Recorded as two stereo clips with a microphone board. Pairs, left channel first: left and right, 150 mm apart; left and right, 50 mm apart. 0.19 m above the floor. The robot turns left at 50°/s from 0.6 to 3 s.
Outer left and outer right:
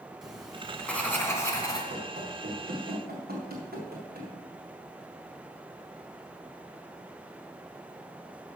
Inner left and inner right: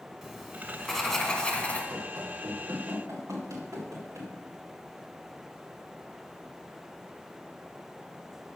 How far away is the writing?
About 1.5 m.